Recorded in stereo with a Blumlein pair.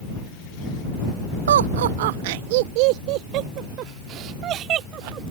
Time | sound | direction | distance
1.5 | laughter | 65° right | ?